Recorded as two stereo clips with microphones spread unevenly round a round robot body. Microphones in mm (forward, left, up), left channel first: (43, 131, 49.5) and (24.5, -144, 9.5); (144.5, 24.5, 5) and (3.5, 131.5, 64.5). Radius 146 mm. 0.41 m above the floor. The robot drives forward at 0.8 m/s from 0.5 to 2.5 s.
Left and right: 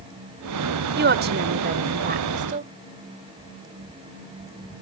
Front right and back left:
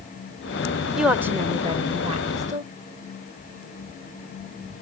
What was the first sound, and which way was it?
A woman speaking, 110° right.